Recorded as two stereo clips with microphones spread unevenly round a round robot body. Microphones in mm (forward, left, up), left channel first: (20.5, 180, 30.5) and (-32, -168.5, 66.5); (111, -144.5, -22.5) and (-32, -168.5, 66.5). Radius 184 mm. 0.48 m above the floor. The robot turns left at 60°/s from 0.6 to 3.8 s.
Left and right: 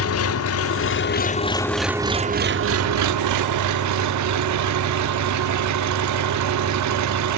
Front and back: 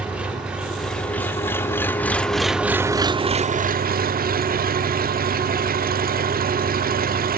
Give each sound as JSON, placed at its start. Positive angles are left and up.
{"t": 0.0, "sound": "an engine running", "azimuth_deg": 70, "distance_m": 0.7}